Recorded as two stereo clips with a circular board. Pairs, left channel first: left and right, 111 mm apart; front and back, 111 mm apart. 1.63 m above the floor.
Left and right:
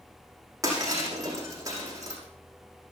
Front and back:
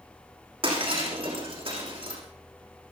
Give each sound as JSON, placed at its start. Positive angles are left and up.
{"t": 0.6, "sound": "breaking glass", "azimuth_deg": -150, "distance_m": 6.0}